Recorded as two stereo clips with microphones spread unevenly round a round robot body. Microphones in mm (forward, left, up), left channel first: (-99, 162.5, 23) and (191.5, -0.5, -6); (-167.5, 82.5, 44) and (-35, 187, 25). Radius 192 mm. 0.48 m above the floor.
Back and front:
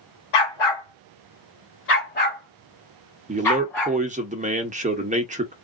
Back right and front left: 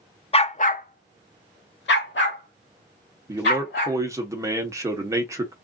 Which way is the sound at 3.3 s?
Straight ahead.